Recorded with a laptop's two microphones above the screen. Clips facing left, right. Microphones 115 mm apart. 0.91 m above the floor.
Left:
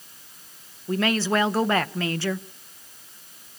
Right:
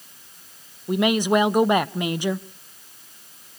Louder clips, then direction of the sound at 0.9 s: Right 4 dB; 15° right (ahead or behind).